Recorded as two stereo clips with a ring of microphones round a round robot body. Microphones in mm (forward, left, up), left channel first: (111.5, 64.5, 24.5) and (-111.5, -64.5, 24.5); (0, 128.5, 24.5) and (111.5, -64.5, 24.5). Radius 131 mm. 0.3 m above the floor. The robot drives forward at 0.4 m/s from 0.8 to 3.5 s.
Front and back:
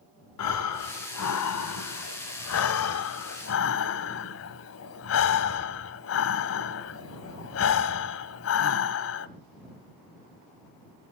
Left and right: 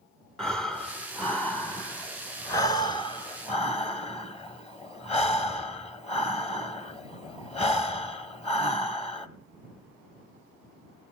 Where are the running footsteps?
I don't hear running footsteps.